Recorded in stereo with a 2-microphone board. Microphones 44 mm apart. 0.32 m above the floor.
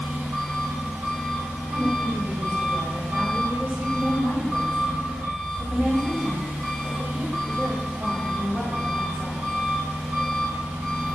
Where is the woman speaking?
40° right (ahead or behind), 1.2 m.